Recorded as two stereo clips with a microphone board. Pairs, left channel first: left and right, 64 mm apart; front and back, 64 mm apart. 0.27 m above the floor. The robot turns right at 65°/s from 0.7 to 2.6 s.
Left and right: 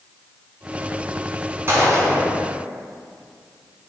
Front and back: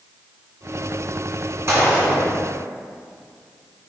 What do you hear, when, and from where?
1.7 s a gunshot: 140° right, 1.4 m; by 2.3 s 95° right, 1.4 m